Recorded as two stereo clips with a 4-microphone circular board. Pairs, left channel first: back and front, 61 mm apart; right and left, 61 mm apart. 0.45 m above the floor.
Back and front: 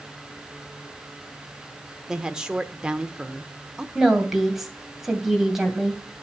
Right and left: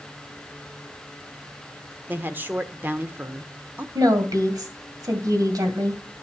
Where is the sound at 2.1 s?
70° left, 0.9 m.